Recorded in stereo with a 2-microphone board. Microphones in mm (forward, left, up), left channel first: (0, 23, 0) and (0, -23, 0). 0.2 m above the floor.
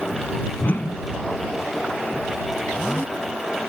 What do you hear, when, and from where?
0.6 s a whoosh: 50° left (ahead or behind)